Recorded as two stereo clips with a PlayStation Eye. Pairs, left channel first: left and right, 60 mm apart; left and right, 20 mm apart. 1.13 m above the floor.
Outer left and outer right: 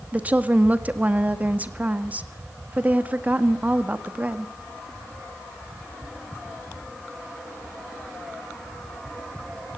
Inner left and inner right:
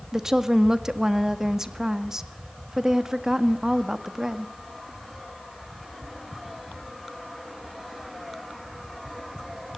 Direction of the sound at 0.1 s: 25° right (ahead or behind).